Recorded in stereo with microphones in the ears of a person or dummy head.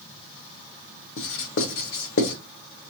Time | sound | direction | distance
1.2 | writing | 65° left (ahead or behind) | 0.9 m